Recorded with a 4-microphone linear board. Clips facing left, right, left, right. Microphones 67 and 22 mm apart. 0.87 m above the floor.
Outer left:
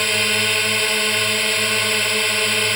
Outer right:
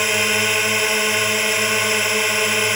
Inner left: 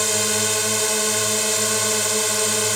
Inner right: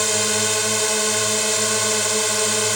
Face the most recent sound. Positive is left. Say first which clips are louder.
# outer right 1 dB, inner right 1 dB
turn(degrees=-10)  # may be behind; listen again after turning